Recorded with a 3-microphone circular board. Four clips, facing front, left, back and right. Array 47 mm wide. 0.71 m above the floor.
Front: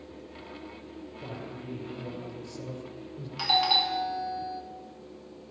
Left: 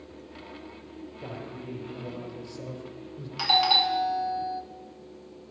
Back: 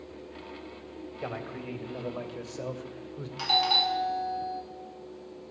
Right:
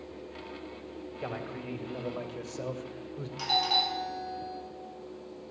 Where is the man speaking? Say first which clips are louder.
Right 2 dB, back 5 dB; 150° right, 3.5 m; by 3.3 s 140° right, 2 m.